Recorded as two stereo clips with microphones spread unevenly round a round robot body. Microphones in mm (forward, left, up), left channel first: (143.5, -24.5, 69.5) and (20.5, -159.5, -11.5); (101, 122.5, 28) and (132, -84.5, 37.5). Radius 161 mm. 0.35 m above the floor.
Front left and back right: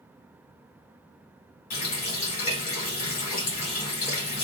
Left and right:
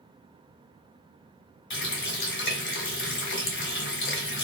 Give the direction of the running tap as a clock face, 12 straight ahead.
9 o'clock.